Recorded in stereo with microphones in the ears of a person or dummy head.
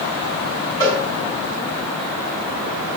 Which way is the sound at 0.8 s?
20° left (ahead or behind).